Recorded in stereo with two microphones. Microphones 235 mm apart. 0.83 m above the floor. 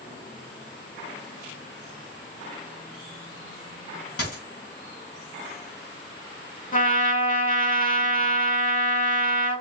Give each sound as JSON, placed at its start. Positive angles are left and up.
{"t": 4.2, "sound": "a dropped coin", "side_deg": 75, "distance_m": 3.0}
{"t": 6.7, "sound": "a trumpet", "side_deg": 35, "distance_m": 1.1}